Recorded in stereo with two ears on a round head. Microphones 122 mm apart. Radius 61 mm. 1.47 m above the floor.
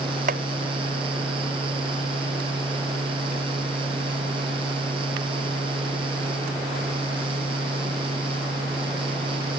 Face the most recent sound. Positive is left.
turn(degrees=-65)  # may be behind; listen again after turning